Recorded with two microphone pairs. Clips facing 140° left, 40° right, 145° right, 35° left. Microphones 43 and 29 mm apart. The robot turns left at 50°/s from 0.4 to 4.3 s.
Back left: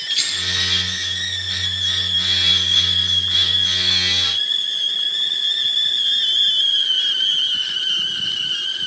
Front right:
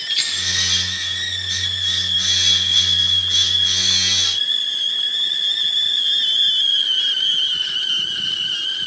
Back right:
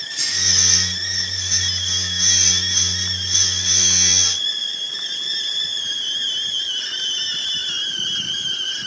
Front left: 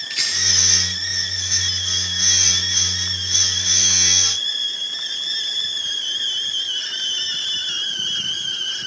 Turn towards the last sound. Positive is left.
turn(degrees=-150)